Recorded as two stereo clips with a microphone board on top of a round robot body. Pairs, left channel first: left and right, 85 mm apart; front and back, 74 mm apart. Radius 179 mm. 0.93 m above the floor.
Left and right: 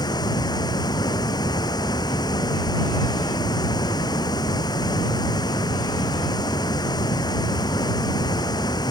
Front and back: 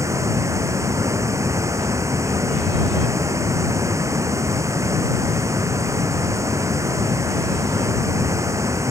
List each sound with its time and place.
0.0 s running water: 130° left